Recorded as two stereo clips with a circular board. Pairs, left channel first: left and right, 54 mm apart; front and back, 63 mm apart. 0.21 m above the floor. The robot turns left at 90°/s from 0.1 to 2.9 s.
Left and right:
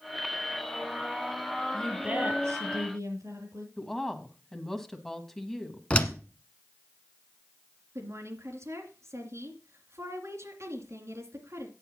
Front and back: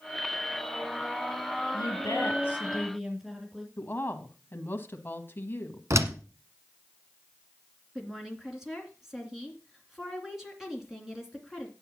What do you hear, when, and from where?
1.7 s a woman speaking: 5° left, 6 m; by 3.7 s 95° right, 6 m
3.8 s a woman speaking: 15° left, 1.2 m
5.9 s a door slam: 155° left, 1.2 m
8.0 s a woman speaking: 100° right, 2.5 m